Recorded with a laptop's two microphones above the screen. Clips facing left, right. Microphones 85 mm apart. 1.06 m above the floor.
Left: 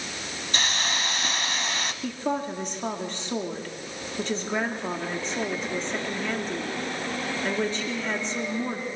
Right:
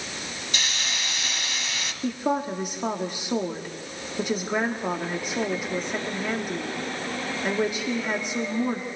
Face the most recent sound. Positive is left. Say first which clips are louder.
# right 4 dB
turn(degrees=-10)  # may be behind; listen again after turning